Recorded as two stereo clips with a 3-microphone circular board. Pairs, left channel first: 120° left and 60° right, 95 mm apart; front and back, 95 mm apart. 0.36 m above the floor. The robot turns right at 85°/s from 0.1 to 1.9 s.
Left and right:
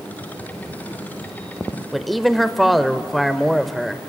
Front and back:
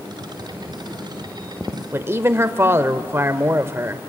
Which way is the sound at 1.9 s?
150° right.